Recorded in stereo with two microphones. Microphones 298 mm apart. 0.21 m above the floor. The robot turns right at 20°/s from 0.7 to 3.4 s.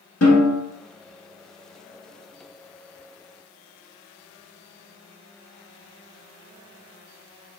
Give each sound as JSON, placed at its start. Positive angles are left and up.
{"t": 0.2, "sound": "a snare drum", "side_deg": 55, "distance_m": 1.2}